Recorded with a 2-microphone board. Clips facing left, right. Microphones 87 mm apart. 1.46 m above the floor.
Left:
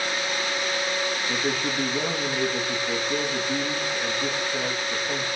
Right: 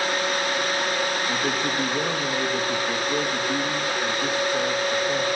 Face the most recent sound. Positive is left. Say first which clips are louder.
# right 2 dB
turn(degrees=-5)  # may be behind; listen again after turning